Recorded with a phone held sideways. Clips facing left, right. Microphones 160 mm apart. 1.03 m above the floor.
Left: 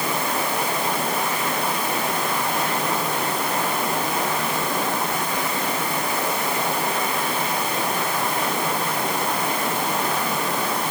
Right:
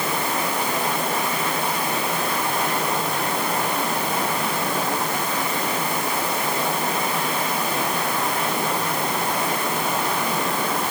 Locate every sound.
Only background noise.